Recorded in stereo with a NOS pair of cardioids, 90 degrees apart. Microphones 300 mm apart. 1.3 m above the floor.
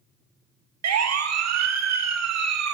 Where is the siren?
65° right, 2.5 m.